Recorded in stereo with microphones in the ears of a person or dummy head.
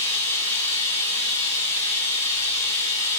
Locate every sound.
0.0 s running water: 35° left (ahead or behind), 6.5 m